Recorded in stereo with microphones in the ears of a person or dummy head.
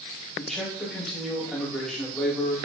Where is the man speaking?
Centre (ahead or behind), 5.5 m.